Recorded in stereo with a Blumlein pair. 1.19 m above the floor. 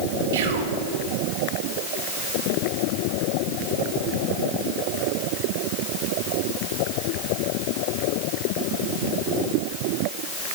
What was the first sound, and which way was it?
Whispering, 55° right.